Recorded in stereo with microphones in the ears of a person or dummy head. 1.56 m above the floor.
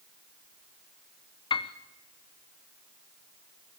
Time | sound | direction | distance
1.5 | a piano | 25° left (ahead or behind) | 0.8 m